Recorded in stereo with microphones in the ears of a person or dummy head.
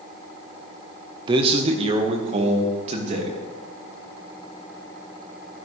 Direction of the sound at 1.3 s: 30° right (ahead or behind).